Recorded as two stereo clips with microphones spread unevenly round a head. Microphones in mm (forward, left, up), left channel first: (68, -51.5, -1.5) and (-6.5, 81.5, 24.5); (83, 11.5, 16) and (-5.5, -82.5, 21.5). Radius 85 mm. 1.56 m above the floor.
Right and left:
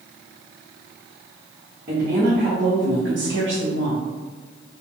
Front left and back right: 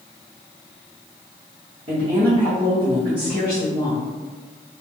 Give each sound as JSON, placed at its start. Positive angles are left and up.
{"t": 1.9, "sound": "a woman speaking", "azimuth_deg": 175, "distance_m": 1.3}